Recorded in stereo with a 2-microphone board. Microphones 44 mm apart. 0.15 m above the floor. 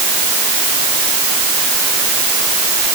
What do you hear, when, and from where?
Only background noise.